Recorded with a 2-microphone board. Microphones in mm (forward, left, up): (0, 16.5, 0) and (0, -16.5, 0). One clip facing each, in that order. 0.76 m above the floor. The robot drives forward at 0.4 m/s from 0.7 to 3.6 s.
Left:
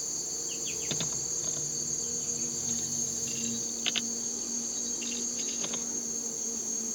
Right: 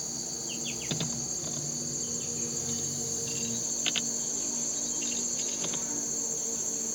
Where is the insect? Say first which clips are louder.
Even; 40° right (ahead or behind), 3.5 m; by 7.0 s 60° right (ahead or behind), 2.5 m.